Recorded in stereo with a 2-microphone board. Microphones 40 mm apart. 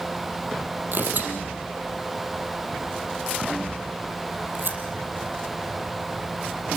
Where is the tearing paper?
55° right (ahead or behind), 4 m.